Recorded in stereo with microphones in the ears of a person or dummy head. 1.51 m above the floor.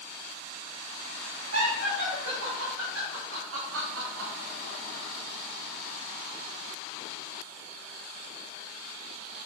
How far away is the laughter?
About 3.5 m.